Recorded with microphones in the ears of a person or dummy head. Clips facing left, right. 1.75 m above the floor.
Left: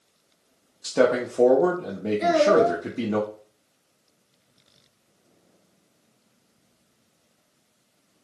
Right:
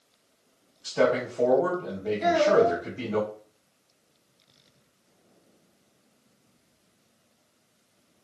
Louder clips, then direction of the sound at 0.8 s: Left 3 dB; 75° left (ahead or behind).